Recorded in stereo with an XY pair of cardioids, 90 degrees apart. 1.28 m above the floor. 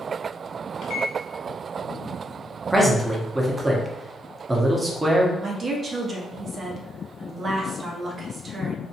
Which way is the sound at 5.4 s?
50° right.